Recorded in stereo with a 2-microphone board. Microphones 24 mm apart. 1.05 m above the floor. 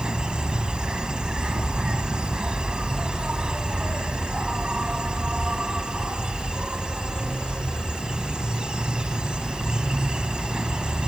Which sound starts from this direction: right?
An insect, at 0.0 s.